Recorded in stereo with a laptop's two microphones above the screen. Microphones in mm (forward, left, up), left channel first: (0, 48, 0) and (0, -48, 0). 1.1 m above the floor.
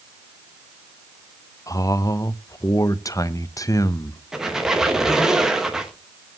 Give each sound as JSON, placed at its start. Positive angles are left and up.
{"t": 1.7, "sound": "a man speaking", "side_deg": 40, "distance_m": 0.8}
{"t": 4.3, "sound": "a squeak", "side_deg": -5, "distance_m": 1.0}